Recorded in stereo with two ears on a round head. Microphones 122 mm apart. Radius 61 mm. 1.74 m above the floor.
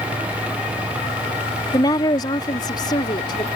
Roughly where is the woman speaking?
Left.